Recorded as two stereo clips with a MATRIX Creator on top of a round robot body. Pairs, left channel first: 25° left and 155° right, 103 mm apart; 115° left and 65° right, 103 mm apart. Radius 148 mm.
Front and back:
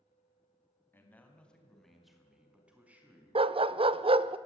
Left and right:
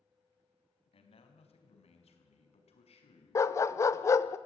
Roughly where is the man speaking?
Left.